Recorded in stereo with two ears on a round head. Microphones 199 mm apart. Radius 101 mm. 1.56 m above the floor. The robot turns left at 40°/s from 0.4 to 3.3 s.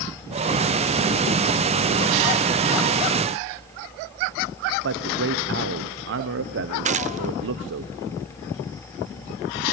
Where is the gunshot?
35° right (ahead or behind), 0.7 m.